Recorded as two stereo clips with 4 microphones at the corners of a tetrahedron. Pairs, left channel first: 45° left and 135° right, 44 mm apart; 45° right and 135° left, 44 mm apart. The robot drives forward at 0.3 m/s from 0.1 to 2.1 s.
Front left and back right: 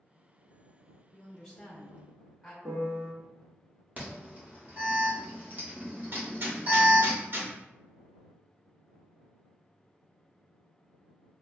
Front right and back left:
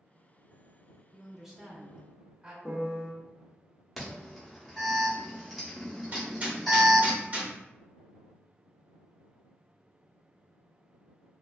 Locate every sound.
1.1 s a woman speaking: 60° left, 0.6 m; by 2.5 s 135° left, 0.6 m
2.6 s a piano: 135° right, 1.1 m
4.0 s an alarm: 135° right, 0.9 m
6.1 s hammering: 170° right, 0.8 m